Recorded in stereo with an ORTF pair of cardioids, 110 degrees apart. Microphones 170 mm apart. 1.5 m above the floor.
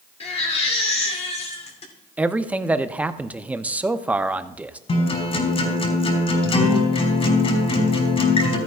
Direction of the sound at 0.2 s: 40° left.